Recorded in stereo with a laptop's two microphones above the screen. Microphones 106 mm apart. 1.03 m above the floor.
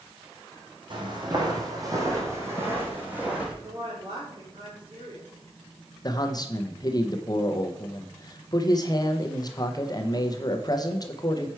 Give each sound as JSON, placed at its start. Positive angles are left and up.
{"t": 0.9, "sound": "footsteps", "side_deg": -50, "distance_m": 1.8}
{"t": 3.6, "sound": "a woman speaking", "side_deg": -55, "distance_m": 4.0}
{"t": 6.0, "sound": "a man speaking", "side_deg": 40, "distance_m": 0.6}